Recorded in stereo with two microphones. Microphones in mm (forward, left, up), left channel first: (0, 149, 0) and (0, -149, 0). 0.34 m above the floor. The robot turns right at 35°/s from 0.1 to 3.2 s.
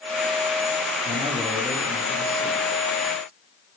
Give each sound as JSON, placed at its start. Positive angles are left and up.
{"t": 1.1, "sound": "a man speaking", "azimuth_deg": -20, "distance_m": 10.0}